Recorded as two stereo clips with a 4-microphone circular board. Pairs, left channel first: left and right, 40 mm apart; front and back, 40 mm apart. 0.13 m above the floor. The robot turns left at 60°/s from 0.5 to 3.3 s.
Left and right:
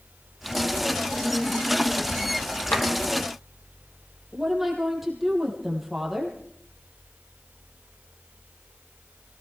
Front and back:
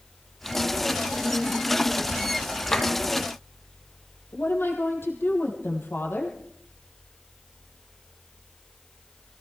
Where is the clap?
65° left, 4 m; by 2.9 s 55° left, 4 m.